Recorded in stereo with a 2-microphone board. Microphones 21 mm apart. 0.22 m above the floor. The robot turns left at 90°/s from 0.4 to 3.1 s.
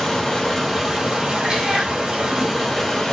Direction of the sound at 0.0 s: 25° left.